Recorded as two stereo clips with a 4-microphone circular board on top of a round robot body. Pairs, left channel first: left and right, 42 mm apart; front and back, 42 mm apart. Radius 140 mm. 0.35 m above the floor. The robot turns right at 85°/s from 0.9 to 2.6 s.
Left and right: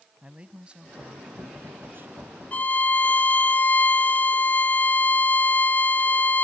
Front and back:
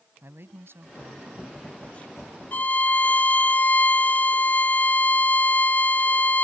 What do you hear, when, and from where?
0.2 s a man speaking: 155° right; by 2.2 s 50° right
2.5 s a violin: 40° left; by 6.4 s 45° left